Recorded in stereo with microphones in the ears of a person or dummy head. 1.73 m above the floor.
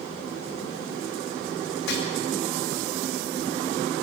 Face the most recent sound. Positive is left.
turn(degrees=75)  # may be behind; listen again after turning